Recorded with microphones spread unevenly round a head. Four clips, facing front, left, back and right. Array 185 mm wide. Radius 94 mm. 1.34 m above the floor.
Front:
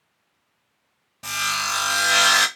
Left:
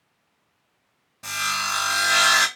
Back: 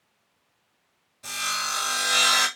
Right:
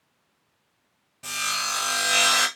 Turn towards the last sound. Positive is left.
turn(degrees=0)